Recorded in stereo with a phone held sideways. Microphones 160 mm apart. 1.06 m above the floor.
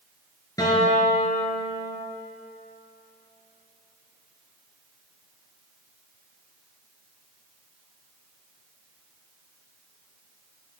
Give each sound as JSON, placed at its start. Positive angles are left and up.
{"t": 0.6, "sound": "a guitar", "side_deg": 20, "distance_m": 2.5}